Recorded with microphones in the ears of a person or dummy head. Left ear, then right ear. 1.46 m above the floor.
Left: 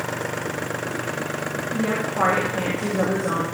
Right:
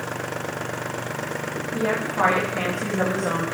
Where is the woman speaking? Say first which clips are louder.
Right 1 dB; 80° right, 1.9 m.